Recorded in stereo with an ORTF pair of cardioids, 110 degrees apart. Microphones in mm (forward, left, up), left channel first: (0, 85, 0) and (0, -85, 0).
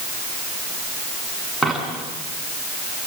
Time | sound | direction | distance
1.6 | a dropped coin | straight ahead | 8 m